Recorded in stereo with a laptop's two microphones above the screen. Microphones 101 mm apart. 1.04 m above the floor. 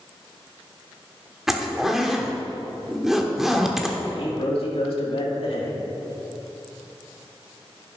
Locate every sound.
1.5 s a zipper: 5° right (ahead or behind), 1.0 m
4.0 s a man speaking: 70° left (ahead or behind), 2.5 m